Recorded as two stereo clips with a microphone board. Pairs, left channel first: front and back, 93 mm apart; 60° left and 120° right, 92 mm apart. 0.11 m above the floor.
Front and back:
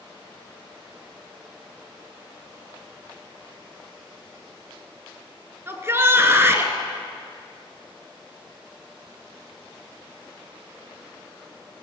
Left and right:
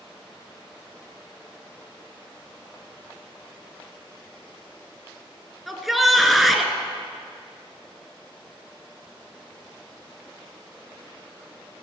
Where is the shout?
150° left, 1.2 m.